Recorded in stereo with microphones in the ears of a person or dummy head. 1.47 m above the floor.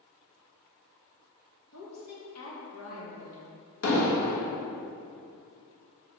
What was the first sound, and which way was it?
A woman speaking, 80° left.